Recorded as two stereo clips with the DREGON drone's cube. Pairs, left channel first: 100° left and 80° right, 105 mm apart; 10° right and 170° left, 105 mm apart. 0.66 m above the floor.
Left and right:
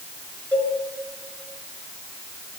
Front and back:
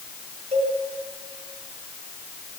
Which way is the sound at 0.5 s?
175° left.